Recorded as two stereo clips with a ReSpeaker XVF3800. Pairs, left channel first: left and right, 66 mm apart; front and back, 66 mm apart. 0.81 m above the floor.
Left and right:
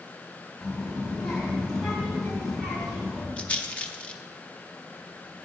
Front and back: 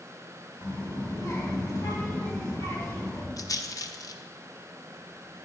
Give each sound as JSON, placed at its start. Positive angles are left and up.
{"t": 0.6, "sound": "a child speaking", "azimuth_deg": 5, "distance_m": 4.0}
{"t": 3.4, "sound": "a rattle", "azimuth_deg": 20, "distance_m": 0.6}